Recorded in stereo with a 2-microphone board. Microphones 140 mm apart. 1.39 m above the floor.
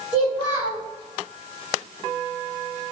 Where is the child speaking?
35° left (ahead or behind), 1.3 m.